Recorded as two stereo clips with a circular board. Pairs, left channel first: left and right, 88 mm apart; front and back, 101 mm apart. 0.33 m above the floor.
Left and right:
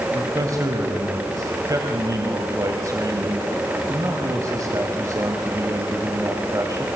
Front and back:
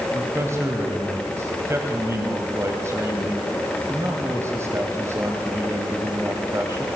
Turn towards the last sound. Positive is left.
turn(degrees=-125)